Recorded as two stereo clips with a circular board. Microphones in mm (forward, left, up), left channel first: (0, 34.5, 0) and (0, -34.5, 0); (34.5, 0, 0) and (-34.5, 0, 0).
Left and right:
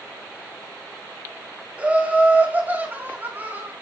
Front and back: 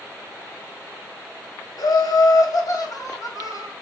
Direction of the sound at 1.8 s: 20° right.